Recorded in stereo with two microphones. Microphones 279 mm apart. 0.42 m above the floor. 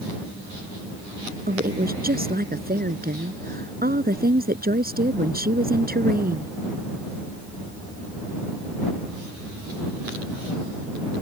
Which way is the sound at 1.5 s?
35° right (ahead or behind).